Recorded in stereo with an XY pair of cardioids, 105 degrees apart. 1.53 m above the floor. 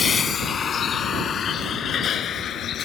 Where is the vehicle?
40° left; by 2.9 s 60° left.